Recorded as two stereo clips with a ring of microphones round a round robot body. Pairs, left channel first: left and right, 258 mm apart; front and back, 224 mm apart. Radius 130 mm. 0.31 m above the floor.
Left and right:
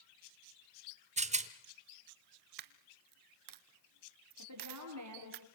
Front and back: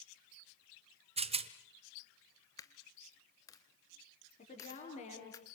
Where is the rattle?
135° right, 1.2 m.